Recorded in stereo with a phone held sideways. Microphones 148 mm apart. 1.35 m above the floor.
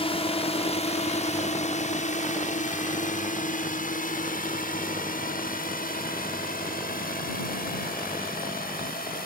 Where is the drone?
40° left (ahead or behind); by 9.3 s 80° left.